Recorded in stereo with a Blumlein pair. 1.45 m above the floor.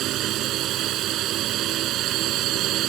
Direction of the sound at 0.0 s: 35° right.